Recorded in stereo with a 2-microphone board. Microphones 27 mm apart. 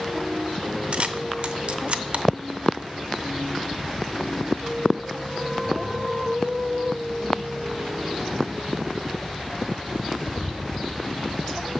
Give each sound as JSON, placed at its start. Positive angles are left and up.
{"t": 0.9, "sound": "a camera shutter", "side_deg": -55, "distance_m": 0.6}